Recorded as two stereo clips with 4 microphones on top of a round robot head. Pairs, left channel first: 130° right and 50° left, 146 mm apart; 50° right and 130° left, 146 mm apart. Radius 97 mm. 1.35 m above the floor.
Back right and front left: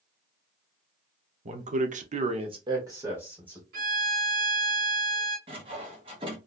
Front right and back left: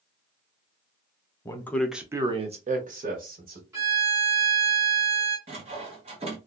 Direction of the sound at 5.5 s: 95° left.